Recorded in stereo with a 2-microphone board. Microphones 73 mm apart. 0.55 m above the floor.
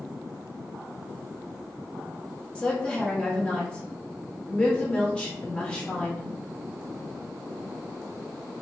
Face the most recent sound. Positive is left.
turn(degrees=15)  # may be behind; listen again after turning